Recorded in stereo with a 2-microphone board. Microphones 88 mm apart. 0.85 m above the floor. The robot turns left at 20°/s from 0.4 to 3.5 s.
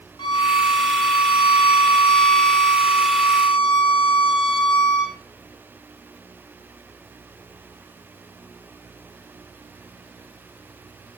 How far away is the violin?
About 2 m.